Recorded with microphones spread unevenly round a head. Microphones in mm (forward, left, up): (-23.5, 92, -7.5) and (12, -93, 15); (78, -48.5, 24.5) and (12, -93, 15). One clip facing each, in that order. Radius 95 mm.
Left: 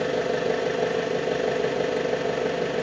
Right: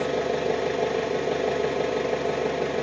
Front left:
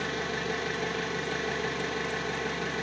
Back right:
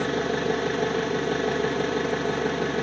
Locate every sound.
0.0 s an engine running: straight behind, 1.0 m